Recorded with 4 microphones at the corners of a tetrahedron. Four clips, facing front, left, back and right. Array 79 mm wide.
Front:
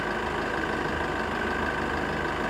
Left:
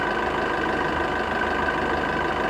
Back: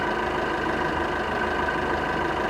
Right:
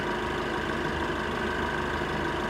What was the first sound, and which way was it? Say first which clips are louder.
An engine running: left 6 dB, back 4 dB; 105° left.